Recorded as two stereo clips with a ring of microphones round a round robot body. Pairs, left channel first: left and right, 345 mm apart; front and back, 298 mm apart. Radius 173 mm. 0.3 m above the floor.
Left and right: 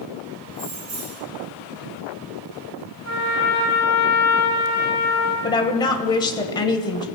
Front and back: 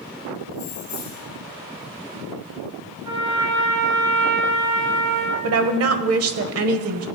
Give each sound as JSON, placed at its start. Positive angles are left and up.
{"t": 0.5, "sound": "keys jangling", "azimuth_deg": -60, "distance_m": 2.5}
{"t": 3.0, "sound": "a trumpet", "azimuth_deg": -150, "distance_m": 3.5}
{"t": 5.4, "sound": "a woman speaking", "azimuth_deg": 165, "distance_m": 1.2}